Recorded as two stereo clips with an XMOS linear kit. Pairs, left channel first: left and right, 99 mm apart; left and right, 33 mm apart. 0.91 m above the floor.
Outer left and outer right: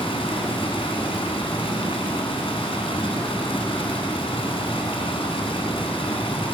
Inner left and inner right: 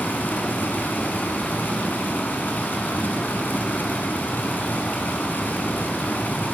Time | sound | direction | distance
0.0 | running water | 70° left (ahead or behind) | 2 m